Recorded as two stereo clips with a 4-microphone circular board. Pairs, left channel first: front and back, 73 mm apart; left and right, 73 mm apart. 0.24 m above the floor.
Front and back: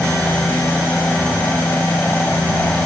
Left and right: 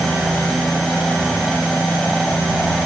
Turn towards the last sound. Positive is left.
turn(degrees=10)